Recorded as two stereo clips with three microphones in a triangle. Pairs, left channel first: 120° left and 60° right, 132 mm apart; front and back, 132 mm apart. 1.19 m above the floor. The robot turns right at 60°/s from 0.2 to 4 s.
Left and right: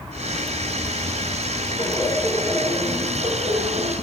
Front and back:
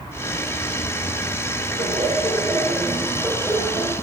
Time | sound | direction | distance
1.8 | laughter | straight behind | 4.5 m